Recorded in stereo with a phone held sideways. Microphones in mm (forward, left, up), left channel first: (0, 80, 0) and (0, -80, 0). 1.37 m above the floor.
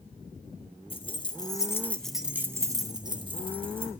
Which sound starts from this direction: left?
Keys jangling, at 0.9 s.